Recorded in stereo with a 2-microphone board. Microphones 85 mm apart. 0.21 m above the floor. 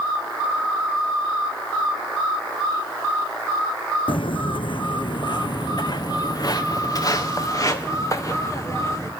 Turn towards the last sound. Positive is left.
turn(degrees=35)  # may be behind; listen again after turning